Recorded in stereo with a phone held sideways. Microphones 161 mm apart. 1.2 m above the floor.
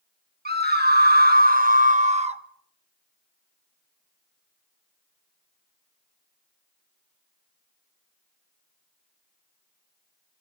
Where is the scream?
80° right, 1.3 m; by 2.4 s 40° right (ahead or behind), 1.1 m.